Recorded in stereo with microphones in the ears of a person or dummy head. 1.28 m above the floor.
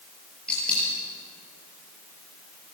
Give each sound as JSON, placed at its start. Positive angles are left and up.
{"t": 0.5, "sound": "a dropped coin", "side_deg": 5, "distance_m": 8.0}